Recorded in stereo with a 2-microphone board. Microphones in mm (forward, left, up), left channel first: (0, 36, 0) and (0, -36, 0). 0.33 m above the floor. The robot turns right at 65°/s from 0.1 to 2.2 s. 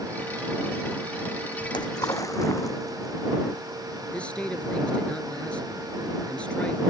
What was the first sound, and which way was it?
A splash, 85° left.